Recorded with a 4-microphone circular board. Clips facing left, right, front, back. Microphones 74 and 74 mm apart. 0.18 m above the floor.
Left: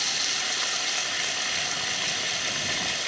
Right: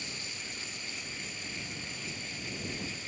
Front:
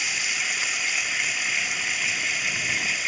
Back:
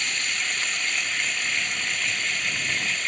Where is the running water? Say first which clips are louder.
Left 11 dB, even; 85° left.